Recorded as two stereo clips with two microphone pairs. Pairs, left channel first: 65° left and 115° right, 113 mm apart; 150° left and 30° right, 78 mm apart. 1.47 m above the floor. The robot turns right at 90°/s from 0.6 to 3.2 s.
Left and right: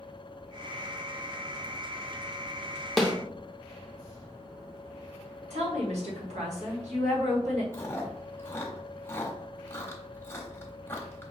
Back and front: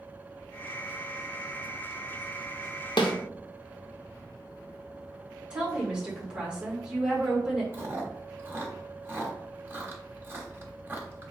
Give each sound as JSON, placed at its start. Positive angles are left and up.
{"t": 3.0, "sound": "a snare drum", "azimuth_deg": 150, "distance_m": 0.8}
{"t": 5.5, "sound": "a woman speaking", "azimuth_deg": -110, "distance_m": 1.7}
{"t": 7.7, "sound": "chewing", "azimuth_deg": 10, "distance_m": 1.0}